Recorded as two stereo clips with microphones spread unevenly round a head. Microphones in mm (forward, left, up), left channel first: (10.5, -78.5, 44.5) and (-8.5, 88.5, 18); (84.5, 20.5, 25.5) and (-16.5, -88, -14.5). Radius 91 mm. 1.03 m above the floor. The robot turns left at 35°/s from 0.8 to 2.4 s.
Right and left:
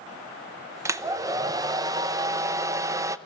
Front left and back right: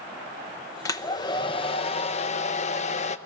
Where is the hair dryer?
125° left, 0.6 m; by 3.2 s 75° left, 0.6 m.